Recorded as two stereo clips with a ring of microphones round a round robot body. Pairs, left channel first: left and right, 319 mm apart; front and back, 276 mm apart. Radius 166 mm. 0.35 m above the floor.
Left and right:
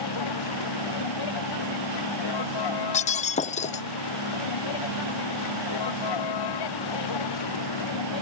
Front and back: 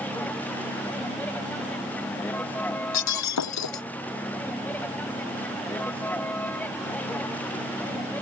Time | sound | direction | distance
0.0 | a vehicle | 85° left | ?
2.9 | breaking glass | 20° left | ?